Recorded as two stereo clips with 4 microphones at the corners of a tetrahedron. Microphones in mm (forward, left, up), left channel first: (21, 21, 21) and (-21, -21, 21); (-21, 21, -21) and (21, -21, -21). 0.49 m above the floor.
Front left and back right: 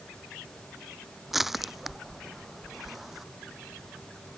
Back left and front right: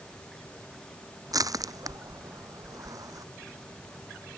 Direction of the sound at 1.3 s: 50° right.